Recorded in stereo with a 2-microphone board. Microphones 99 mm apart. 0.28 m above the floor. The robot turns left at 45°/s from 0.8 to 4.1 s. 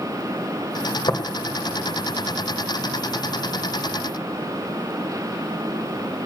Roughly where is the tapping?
Left.